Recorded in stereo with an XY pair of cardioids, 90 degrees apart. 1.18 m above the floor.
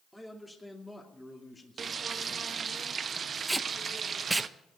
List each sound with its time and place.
0.1 s a man speaking: straight ahead, 2.5 m; by 2.8 s 35° left, 1.9 m
1.8 s frying: 50° right, 0.8 m
3.5 s tape being pulled: 15° right, 0.7 m